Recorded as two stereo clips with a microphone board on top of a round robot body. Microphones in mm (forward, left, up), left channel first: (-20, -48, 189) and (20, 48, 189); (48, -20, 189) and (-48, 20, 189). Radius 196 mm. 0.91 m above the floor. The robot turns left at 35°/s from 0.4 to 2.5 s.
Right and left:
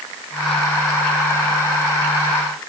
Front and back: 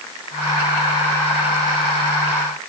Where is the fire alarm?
I don't hear a fire alarm.